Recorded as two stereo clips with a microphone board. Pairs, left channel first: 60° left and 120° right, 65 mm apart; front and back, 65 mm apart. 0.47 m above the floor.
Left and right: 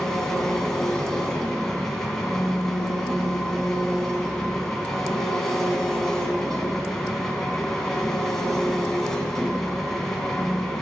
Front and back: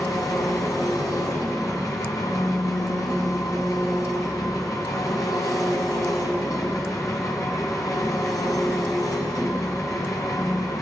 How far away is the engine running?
About 1.6 m.